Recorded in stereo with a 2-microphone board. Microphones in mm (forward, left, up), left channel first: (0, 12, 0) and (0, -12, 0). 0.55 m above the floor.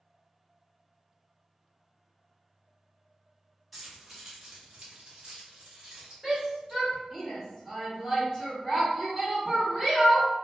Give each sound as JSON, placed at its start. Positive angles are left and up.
{"t": 3.7, "sound": "keys jangling", "side_deg": 0, "distance_m": 1.1}
{"t": 6.2, "sound": "a shout", "side_deg": -30, "distance_m": 1.5}